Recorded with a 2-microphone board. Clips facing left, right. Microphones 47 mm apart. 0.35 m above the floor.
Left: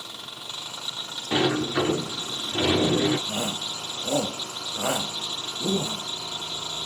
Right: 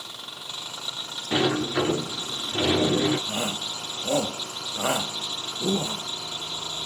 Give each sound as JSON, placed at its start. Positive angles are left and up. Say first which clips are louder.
{"t": 1.3, "sound": "a sliding door", "louder": "even", "side_deg": 10, "distance_m": 2.5}
{"t": 3.3, "sound": "a shout", "louder": "even", "side_deg": -35, "distance_m": 1.4}